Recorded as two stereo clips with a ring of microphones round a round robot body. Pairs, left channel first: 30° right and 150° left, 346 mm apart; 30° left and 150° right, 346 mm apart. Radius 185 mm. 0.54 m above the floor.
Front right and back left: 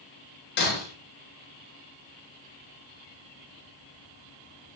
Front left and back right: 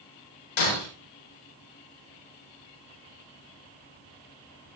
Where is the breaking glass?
30° left, 7 m.